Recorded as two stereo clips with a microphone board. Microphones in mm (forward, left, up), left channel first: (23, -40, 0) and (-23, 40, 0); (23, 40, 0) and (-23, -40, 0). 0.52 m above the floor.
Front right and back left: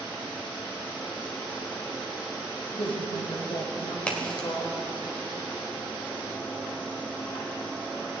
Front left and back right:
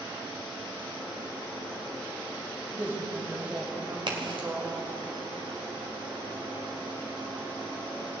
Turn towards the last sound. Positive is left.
turn(degrees=-135)